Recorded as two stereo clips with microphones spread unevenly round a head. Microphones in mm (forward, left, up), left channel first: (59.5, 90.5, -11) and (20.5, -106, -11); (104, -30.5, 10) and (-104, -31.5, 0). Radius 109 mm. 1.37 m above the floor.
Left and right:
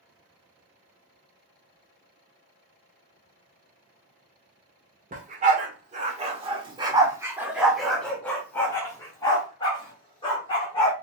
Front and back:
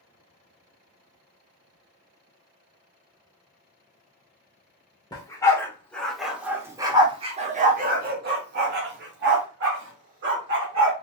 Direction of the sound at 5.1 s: 65° right.